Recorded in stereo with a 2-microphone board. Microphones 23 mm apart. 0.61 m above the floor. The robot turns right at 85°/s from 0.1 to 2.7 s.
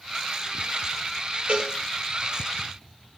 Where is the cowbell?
65° right (ahead or behind), 6 m; by 1.7 s 45° right (ahead or behind), 6 m.